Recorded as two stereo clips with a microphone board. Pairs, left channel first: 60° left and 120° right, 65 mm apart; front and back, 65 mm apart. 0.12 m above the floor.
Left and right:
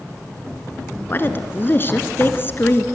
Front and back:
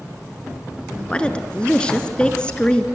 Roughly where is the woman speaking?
Ahead left.